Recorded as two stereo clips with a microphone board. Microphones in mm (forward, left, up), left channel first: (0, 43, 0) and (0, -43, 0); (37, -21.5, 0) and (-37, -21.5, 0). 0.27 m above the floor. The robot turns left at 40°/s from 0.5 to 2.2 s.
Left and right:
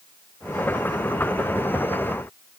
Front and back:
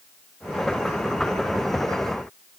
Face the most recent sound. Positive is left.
No sound to turn to.